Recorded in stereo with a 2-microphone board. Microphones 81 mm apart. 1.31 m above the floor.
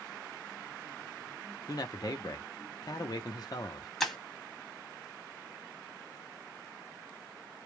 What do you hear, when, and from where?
1.7 s a man speaking: 50° left (ahead or behind), 0.7 m
4.0 s breaking glass: centre (ahead or behind), 1.2 m